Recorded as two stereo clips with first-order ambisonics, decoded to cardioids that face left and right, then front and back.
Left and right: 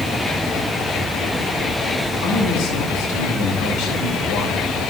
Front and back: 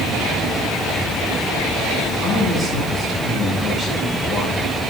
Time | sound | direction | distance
2.2 | a man speaking | 100° left | 3 m